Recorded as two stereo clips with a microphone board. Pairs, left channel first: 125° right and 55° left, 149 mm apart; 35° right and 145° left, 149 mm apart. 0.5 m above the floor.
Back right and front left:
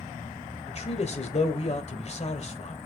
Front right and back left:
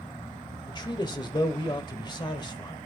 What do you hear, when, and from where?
0.7 s a man speaking: 90° right, 1.6 m